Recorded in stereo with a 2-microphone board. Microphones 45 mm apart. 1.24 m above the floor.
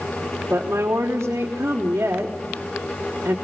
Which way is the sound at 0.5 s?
75° right (ahead or behind).